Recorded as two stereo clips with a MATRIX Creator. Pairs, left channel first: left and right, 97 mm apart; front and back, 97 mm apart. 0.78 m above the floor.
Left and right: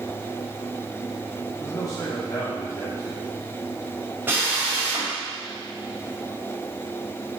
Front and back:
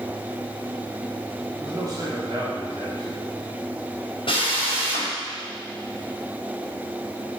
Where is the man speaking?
140° left, 2 m.